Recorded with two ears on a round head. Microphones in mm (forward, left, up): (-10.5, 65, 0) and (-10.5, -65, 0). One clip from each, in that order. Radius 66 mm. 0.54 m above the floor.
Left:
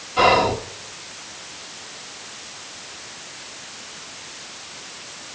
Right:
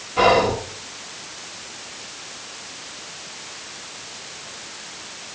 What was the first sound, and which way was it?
Whispering, 20° left (ahead or behind).